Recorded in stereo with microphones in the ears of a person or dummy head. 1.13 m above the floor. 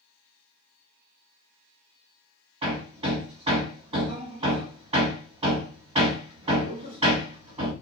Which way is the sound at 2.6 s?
25° right (ahead or behind).